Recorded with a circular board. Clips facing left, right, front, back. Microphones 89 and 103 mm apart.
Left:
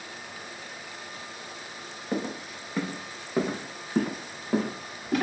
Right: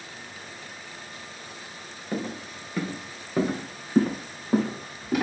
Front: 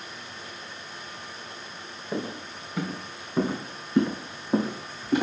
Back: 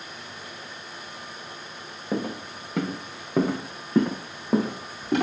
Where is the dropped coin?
I don't hear a dropped coin.